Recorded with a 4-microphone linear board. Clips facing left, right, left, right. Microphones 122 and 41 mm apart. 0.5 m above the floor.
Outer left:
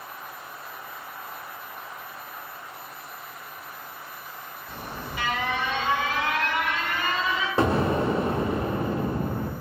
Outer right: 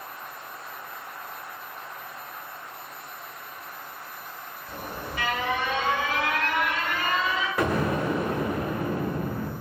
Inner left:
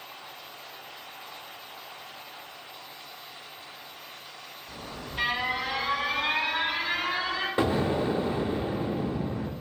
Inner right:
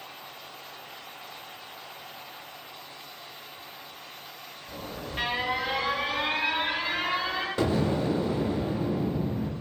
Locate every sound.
4.7 s an alarm: 50° right (ahead or behind), 1.7 m
7.6 s an explosion: 30° left (ahead or behind), 0.5 m